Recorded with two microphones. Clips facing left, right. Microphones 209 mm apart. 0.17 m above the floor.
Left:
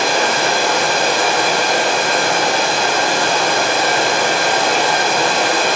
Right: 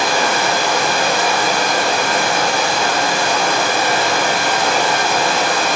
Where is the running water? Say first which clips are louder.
Left 1 dB; 30° left (ahead or behind), 3 m.